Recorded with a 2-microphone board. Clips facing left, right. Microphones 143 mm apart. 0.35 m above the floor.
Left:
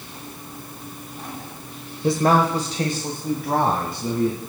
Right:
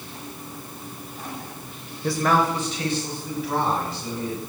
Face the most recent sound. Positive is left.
turn(degrees=55)  # may be behind; listen again after turning